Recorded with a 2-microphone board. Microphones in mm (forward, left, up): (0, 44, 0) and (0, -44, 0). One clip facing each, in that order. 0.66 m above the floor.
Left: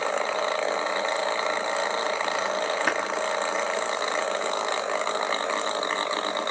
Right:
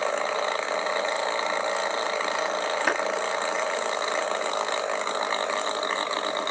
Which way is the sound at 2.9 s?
Centre (ahead or behind).